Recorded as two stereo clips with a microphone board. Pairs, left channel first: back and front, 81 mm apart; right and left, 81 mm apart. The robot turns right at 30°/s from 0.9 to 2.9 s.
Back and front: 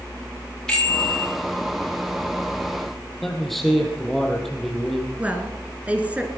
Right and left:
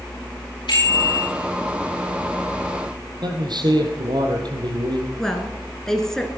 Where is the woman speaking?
20° right, 1.7 m.